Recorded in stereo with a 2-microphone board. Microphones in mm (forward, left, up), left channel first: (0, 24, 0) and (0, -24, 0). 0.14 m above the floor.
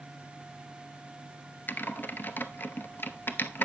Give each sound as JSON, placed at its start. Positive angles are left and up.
{"t": 1.7, "sound": "typing on a keyboard", "side_deg": 45, "distance_m": 0.6}